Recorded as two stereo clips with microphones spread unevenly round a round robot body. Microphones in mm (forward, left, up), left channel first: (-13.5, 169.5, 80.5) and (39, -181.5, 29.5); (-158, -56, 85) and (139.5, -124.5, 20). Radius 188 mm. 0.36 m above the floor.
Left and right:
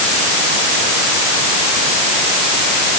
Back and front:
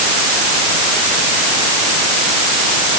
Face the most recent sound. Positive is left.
No sound to turn to.